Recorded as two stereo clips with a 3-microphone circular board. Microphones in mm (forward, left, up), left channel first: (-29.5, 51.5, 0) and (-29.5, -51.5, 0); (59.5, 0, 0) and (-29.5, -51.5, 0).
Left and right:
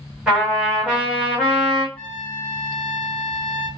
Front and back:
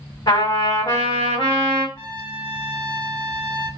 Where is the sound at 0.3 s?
10° right, 1.4 m.